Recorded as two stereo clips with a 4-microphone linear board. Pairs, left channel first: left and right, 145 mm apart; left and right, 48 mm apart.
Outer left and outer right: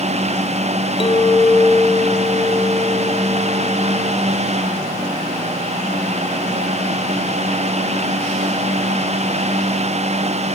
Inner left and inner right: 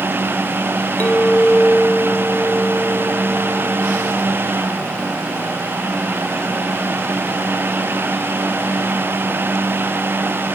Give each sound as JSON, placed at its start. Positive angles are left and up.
{"t": 1.0, "sound": "a clink", "side_deg": 35, "distance_m": 2.5}